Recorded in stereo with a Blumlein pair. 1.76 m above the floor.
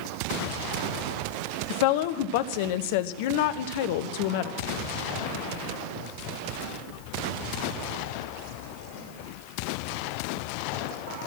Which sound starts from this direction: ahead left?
A woman speaking, at 1.7 s.